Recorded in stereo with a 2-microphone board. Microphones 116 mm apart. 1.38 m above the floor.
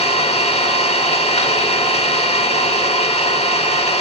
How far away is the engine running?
About 1.2 m.